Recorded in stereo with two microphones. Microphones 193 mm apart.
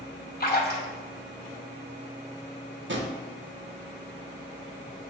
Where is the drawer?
70° right (ahead or behind), 0.6 m.